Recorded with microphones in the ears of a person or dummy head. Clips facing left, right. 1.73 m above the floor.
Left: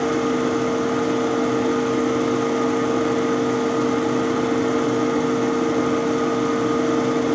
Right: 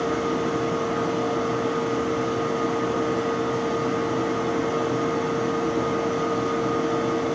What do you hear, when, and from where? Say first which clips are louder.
0.0 s a machine running: left 4 dB; 70° left (ahead or behind), 1.0 m